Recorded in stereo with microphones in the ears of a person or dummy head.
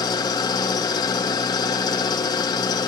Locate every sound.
0.0 s an engine running: 20° left (ahead or behind), 0.8 m